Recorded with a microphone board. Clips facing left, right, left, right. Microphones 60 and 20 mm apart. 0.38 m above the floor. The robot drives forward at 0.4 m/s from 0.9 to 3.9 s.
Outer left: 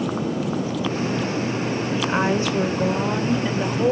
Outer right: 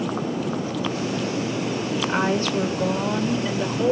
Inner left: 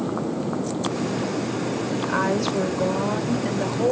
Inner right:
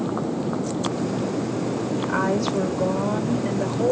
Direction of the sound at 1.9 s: 20° left (ahead or behind).